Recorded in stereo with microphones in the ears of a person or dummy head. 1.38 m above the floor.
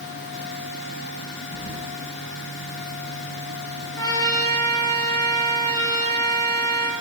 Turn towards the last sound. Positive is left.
turn(degrees=20)  # may be behind; listen again after turning